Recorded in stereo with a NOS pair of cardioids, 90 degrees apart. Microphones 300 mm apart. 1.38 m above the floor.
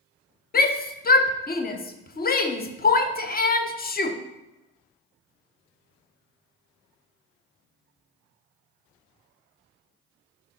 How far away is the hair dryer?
No hair dryer in this recording.